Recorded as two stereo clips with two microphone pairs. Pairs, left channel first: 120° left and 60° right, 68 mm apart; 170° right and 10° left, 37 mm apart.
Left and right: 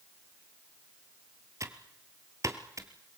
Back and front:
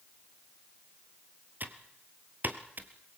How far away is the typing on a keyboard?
About 1.5 m.